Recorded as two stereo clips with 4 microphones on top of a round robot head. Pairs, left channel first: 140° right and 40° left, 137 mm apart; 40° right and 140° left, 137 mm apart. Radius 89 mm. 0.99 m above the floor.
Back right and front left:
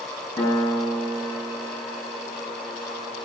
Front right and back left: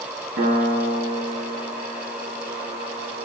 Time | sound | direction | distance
0.4 | a piano | 150° left | 7 m